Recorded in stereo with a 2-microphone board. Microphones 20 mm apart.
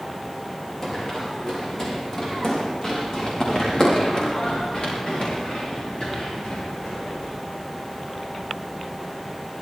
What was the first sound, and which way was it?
Running footsteps, 25° left (ahead or behind).